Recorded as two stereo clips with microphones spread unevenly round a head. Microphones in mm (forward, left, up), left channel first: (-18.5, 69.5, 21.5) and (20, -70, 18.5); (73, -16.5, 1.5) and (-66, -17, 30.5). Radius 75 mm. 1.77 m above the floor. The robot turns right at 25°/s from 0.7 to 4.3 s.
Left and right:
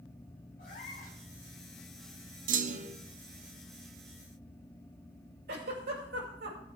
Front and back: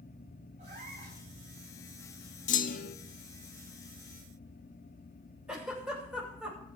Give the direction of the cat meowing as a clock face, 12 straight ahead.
7 o'clock.